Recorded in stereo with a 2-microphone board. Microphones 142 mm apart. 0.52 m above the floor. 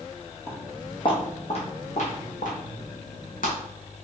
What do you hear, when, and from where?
0.5 s footsteps: 20° left (ahead or behind), 1.4 m; by 3.6 s 80° left, 2 m